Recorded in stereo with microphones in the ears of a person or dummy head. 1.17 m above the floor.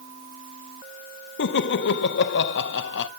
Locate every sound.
1.4 s laughter: 65° left (ahead or behind), 0.6 m